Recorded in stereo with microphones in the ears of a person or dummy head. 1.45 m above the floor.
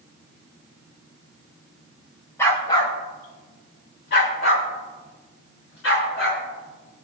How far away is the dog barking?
About 2 m.